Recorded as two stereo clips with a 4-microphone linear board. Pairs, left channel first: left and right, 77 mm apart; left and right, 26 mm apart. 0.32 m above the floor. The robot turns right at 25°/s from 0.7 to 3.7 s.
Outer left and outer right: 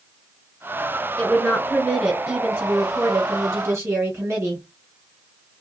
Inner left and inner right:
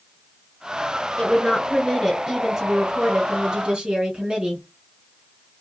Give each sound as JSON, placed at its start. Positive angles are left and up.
{"t": 1.2, "sound": "a woman speaking", "azimuth_deg": 150, "distance_m": 1.8}